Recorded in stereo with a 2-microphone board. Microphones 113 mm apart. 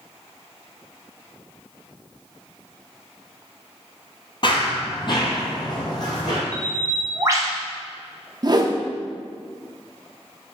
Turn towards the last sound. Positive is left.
turn(degrees=-40)  # may be behind; listen again after turning